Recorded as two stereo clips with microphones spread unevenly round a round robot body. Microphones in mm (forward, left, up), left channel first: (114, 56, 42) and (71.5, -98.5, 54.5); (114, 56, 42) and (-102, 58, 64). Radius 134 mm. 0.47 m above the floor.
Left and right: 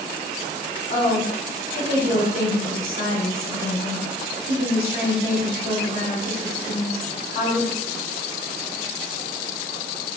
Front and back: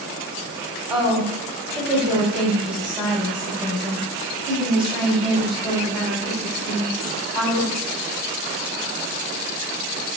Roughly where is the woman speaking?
Behind left.